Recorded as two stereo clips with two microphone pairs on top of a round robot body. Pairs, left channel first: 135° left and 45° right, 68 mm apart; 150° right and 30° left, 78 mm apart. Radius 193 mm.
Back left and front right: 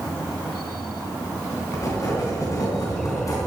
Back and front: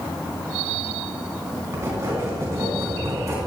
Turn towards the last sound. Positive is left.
turn(degrees=85)